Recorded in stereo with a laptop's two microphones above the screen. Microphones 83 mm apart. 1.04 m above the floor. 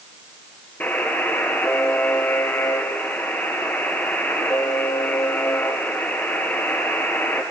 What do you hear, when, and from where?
0.8 s a buzzer: 20° left (ahead or behind), 4.5 m